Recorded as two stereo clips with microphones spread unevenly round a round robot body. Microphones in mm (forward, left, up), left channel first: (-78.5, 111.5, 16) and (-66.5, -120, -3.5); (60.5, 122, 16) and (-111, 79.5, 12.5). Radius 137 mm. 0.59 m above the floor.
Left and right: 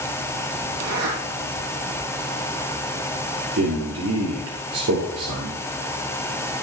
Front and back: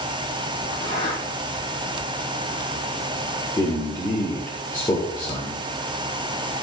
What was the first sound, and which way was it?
A zipper, 60° right.